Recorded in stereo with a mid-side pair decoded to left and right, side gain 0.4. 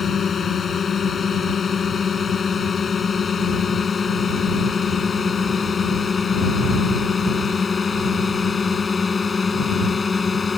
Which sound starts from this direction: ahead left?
A drone, at 0.0 s.